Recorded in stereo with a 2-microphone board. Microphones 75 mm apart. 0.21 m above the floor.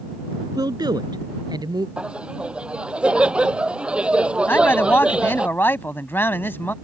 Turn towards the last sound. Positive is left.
turn(degrees=30)  # may be behind; listen again after turning